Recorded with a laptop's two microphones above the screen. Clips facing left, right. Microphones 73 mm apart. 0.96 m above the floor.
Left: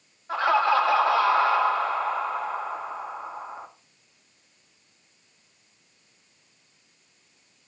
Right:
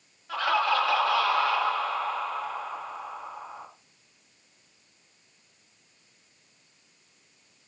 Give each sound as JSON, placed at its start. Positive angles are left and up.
{"t": 0.3, "sound": "laughter", "side_deg": 25, "distance_m": 2.0}